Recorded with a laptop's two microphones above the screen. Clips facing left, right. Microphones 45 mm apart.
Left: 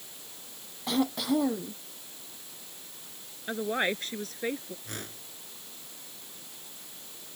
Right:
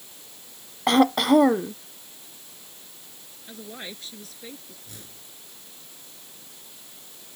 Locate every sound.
0.9 s throat clearing: 65° right (ahead or behind)
3.5 s a woman speaking: 50° left (ahead or behind)
4.8 s a whoosh: 60° left (ahead or behind)